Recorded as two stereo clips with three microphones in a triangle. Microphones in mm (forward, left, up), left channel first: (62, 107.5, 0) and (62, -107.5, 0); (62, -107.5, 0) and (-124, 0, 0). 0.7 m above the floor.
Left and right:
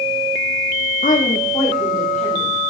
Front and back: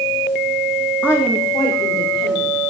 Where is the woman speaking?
50° left, 0.9 m; by 2.6 s 10° left, 2.5 m.